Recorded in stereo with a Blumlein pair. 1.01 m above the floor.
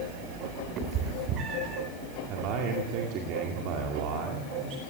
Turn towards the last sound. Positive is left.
turn(degrees=-40)